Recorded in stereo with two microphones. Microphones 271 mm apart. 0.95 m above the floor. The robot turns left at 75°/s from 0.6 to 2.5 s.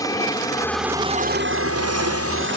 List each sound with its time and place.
0.0 s an aircraft: 15° left; by 2.6 s 130° right